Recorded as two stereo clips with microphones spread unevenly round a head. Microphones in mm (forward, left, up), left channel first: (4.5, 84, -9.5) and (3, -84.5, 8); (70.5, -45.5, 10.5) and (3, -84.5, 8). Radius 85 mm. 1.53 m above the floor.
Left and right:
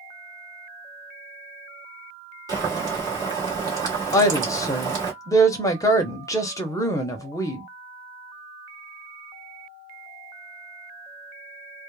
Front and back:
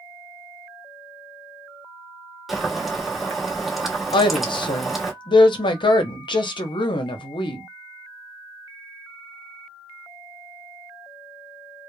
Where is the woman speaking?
20° left, 0.7 m.